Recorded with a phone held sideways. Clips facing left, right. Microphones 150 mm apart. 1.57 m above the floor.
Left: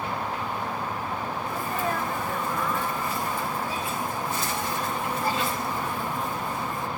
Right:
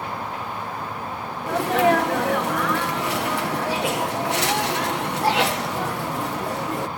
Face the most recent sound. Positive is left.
turn(degrees=-80)